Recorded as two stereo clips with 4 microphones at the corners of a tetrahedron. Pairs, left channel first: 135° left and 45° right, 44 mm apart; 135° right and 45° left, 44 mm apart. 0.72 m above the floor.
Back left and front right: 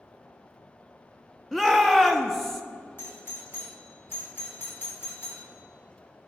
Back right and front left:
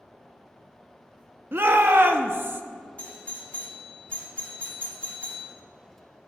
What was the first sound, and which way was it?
A shout, 50° left.